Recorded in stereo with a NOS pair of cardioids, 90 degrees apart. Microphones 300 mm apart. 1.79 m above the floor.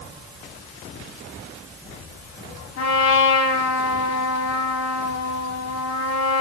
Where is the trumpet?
55° left, 5 m.